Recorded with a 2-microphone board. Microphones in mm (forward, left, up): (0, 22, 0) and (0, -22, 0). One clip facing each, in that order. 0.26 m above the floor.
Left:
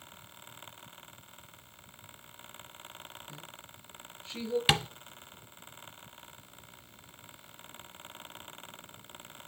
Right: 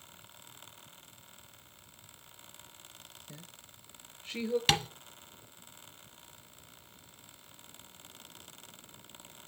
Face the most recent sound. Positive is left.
turn(degrees=10)  # may be behind; listen again after turning